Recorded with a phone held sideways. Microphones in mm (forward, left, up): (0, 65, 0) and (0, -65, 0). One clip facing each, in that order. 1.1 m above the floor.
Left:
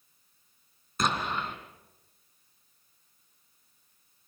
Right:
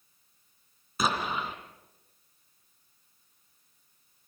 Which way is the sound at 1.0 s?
5° right (ahead or behind).